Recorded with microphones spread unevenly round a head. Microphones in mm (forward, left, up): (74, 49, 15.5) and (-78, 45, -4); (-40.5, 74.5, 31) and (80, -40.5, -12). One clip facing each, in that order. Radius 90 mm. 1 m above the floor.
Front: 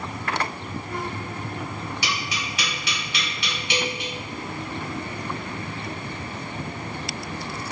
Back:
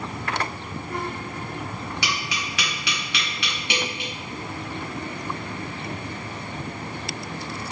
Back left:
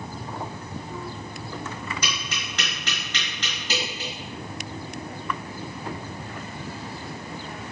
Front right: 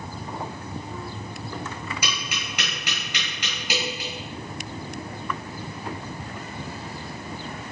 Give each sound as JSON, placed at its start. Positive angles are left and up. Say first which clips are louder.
{"t": 2.0, "sound": "tapping", "louder": "even, even", "azimuth_deg": -130, "distance_m": 1.6}